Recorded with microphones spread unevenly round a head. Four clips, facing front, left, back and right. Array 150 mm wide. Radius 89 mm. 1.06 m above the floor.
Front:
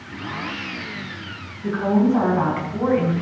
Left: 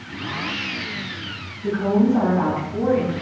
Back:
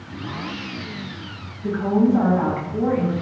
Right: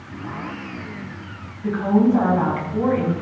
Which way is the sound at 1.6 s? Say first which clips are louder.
Right 1 dB, even; 5° right.